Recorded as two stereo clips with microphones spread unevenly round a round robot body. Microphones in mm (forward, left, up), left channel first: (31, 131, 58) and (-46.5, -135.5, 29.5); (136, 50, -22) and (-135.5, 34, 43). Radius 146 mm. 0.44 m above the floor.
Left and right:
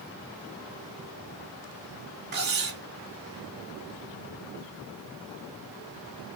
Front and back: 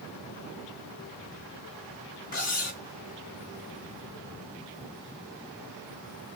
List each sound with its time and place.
2.3 s cutlery clinking: 55° right, 2.5 m